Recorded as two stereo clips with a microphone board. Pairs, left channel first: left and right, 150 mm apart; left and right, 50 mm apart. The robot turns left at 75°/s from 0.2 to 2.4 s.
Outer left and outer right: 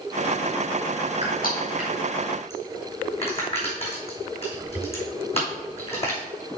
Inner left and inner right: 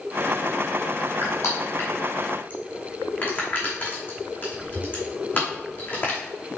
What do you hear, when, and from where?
1.2 s crushing: 50° left (ahead or behind), 3 m; by 6.2 s 40° left (ahead or behind), 3 m